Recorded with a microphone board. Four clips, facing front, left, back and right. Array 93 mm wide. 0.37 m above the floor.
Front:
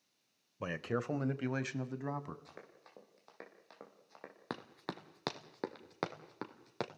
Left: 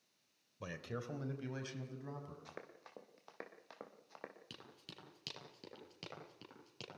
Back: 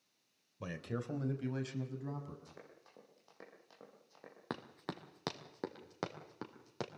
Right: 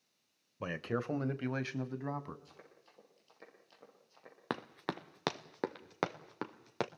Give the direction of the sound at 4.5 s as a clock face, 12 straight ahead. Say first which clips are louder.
Right 18 dB, even; 3 o'clock.